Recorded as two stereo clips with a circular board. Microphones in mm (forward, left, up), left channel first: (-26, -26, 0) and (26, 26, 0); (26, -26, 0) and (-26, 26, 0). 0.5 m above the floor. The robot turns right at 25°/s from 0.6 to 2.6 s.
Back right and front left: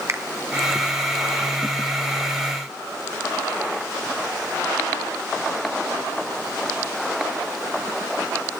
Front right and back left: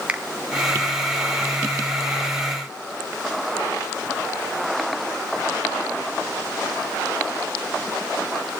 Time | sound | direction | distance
0.1 | a finger snap | 70° left | 0.8 m